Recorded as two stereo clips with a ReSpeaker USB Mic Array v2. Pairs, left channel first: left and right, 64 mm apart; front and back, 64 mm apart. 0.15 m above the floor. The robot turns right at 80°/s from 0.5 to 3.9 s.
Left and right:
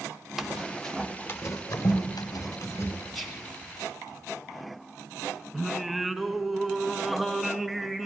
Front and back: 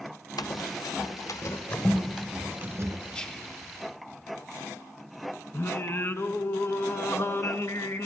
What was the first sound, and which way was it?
Running footsteps, 10° right.